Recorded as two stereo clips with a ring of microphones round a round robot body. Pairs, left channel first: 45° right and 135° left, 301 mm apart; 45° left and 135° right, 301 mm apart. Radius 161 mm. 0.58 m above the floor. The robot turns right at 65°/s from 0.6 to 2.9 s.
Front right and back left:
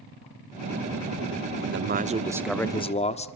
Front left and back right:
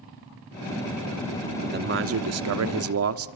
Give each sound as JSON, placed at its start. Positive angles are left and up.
{"t": 1.6, "sound": "a man speaking", "azimuth_deg": 165, "distance_m": 1.5}